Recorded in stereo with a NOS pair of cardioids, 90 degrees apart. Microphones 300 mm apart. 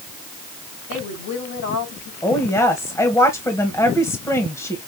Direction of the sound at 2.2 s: 10° left.